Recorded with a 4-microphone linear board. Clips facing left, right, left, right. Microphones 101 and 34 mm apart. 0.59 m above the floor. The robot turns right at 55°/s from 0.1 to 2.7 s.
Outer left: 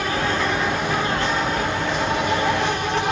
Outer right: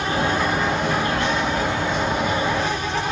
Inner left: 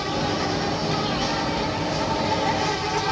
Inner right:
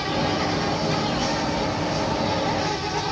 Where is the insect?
30° right, 1.4 m; by 3.1 s 115° left, 1.4 m.